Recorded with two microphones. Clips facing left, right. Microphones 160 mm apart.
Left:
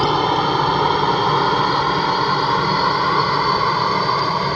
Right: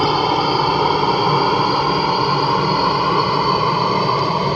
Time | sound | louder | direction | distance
0.0 | a helicopter | right 1 dB | 5° right (ahead or behind) | ?